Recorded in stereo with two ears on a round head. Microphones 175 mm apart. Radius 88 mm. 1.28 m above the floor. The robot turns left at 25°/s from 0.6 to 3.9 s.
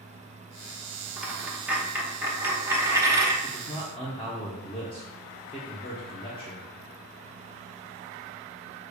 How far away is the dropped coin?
About 0.7 m.